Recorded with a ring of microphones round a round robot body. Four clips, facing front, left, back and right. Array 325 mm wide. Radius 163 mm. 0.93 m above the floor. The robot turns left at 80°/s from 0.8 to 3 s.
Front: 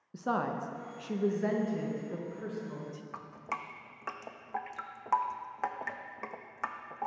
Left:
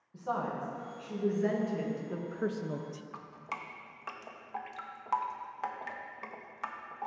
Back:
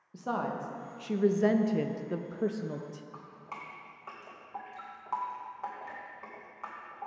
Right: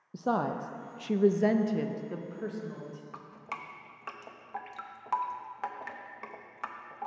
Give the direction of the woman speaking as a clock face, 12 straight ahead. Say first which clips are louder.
Right 4 dB, front 1 dB; 2 o'clock.